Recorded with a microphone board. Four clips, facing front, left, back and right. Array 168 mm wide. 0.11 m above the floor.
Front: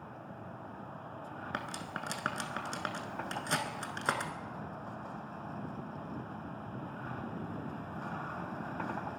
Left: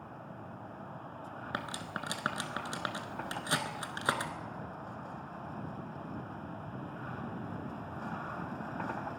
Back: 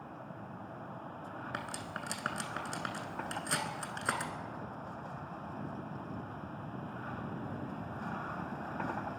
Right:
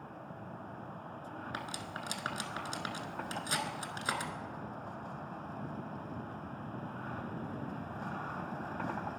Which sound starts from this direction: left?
Cutlery clinking, at 1.5 s.